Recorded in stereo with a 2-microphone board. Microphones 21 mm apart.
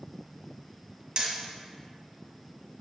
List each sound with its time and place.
1.2 s hammering: 40° right (ahead or behind), 1.6 m